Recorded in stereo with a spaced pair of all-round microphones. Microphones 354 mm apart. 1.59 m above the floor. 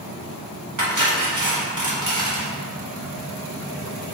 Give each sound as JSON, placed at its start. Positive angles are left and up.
{"t": 0.8, "sound": "cutlery clinking", "side_deg": -55, "distance_m": 1.4}